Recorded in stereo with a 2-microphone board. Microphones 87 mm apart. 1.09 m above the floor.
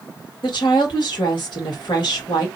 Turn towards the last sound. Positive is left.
turn(degrees=65)  # may be behind; listen again after turning